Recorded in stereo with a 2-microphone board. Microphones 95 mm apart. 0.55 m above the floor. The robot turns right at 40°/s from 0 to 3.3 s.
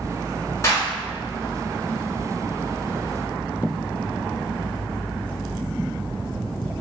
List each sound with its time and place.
0.6 s a clap: 35° left (ahead or behind), 1.4 m; by 0.9 s 40° left (ahead or behind), 1.4 m